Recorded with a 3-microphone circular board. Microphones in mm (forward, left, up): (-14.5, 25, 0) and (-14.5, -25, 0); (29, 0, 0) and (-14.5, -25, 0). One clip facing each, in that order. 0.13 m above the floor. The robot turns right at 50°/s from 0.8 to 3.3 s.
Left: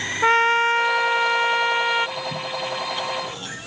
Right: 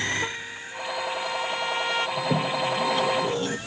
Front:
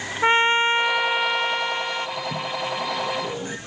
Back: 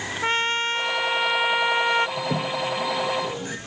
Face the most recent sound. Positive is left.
turn(degrees=-50)